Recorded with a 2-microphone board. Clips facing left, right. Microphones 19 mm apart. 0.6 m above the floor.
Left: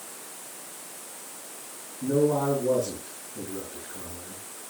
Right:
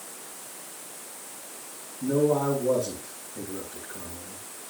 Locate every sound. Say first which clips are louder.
2.0 s a man speaking: even; 5° right (ahead or behind), 7 m